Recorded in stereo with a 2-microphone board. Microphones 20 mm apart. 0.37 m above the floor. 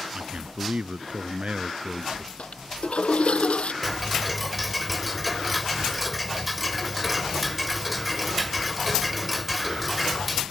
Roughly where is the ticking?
Centre.